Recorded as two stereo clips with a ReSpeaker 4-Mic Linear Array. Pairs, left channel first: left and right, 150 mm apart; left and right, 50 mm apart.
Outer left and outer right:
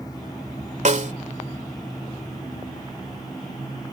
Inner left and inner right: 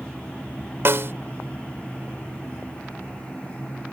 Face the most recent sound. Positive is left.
turn(degrees=-55)  # may be behind; listen again after turning